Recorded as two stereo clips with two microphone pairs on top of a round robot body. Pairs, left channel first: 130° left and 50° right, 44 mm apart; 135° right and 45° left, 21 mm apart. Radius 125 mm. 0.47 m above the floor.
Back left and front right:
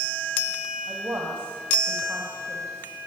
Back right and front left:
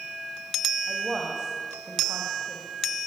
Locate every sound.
0.9 s a woman speaking: 10° right, 3.5 m